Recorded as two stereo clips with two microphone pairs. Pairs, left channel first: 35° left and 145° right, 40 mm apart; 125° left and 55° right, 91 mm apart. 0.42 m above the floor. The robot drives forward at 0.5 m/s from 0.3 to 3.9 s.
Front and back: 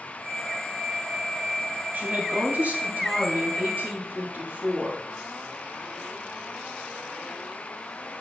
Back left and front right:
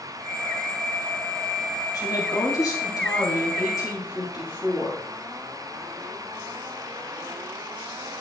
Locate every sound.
1.9 s a woman speaking: 170° left, 3 m